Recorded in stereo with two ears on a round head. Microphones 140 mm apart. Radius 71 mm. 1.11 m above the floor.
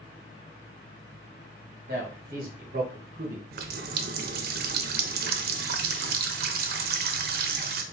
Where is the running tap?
65° right (ahead or behind), 0.5 m.